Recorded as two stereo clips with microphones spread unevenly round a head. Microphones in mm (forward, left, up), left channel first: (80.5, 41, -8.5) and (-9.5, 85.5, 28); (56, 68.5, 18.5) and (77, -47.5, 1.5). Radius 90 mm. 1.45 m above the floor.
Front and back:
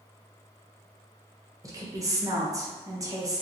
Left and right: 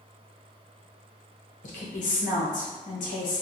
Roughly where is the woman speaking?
Left.